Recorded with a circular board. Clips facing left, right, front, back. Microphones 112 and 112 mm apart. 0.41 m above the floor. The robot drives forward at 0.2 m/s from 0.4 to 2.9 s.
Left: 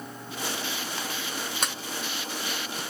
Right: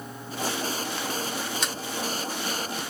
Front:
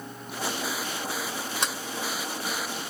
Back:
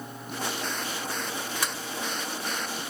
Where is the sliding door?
60° left, 1.2 m; by 1.7 s 65° left, 1.2 m.